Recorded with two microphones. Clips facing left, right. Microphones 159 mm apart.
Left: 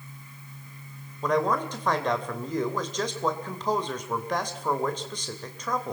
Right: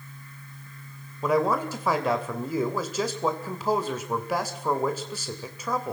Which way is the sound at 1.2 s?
5° right (ahead or behind).